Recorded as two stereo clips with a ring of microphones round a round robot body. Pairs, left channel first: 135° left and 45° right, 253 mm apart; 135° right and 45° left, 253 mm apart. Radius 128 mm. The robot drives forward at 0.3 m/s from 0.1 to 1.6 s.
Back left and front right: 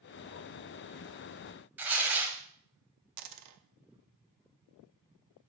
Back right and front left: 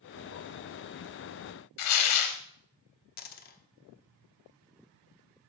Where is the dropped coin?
75° right, 0.7 m.